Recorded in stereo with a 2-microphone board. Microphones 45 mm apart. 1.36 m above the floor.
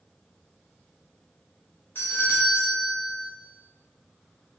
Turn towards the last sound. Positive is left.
turn(degrees=50)  # may be behind; listen again after turning